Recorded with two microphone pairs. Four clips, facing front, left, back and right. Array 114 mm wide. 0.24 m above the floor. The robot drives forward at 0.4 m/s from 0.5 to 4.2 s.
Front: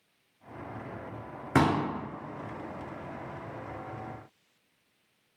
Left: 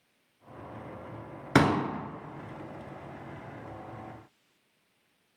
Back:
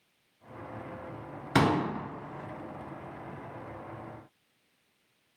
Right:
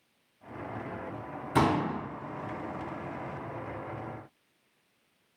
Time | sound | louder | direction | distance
1.6 | a pop | left 2 dB, even | 80° left | 1.1 m